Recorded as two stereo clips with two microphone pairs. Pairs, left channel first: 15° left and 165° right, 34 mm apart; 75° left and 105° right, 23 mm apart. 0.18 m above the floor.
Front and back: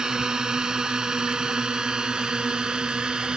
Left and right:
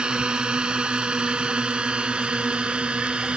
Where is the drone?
105° right; by 3.4 s 110° right.